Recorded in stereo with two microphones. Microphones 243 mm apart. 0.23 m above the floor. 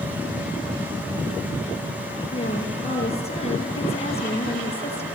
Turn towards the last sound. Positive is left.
turn(degrees=25)  # may be behind; listen again after turning